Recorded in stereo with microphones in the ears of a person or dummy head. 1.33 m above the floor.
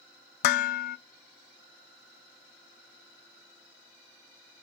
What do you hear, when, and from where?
0.4 s dishes clattering: 50° left (ahead or behind), 0.5 m